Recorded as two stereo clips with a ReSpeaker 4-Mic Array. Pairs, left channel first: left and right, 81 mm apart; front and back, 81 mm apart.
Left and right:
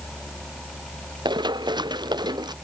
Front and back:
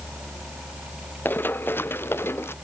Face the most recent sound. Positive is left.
turn(degrees=-60)